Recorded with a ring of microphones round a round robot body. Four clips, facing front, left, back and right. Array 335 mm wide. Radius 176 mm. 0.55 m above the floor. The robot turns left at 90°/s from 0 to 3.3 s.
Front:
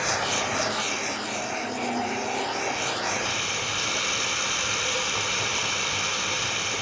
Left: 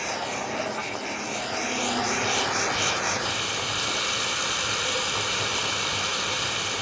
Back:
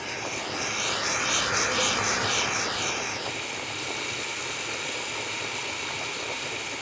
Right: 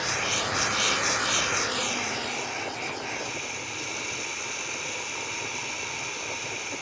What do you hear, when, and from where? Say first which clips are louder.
0.0 s running water: even, front 7 dB; 15° right, 0.9 m; by 6.8 s 50° left, 0.9 m